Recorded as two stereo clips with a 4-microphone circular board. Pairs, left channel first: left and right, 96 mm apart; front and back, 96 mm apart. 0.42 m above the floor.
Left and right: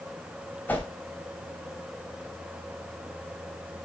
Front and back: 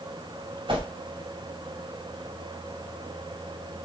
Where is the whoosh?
160° left, 2.5 m.